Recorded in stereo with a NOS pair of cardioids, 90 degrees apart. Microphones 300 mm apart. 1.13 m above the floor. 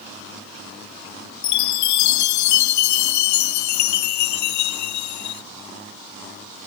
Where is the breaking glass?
I don't hear breaking glass.